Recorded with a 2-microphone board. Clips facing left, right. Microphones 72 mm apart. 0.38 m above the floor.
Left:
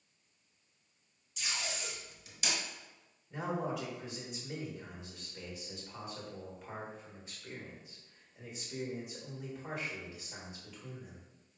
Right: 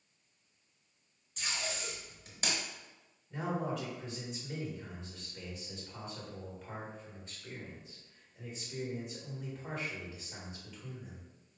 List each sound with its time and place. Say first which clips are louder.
1.4 s tape being pulled: right 1 dB; 45° right (ahead or behind), 1.0 m
3.3 s a man speaking: even; 5° left (ahead or behind), 1.2 m